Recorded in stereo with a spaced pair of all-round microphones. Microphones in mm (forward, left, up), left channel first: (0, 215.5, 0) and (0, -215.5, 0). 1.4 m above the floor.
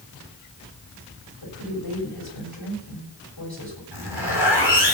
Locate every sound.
1.4 s a woman speaking: 60° left (ahead or behind), 7.5 m
3.9 s a zipper: 65° left (ahead or behind), 5.5 m